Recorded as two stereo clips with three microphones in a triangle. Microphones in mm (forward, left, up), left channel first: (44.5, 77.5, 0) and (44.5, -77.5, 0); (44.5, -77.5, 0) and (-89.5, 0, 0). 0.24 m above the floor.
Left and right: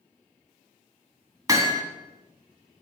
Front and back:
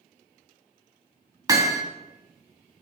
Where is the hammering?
150° right, 0.8 m.